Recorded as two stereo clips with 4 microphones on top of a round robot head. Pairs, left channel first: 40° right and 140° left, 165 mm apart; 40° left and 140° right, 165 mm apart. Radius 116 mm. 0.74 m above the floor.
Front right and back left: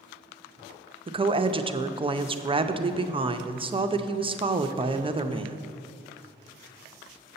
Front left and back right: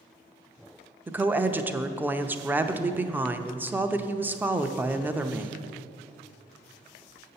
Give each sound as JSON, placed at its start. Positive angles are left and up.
{"t": 1.1, "sound": "a woman speaking", "azimuth_deg": 150, "distance_m": 0.6}